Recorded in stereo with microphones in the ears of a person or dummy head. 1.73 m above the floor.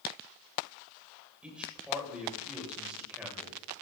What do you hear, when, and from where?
1.4 s a man speaking: 5° right (ahead or behind), 8.5 m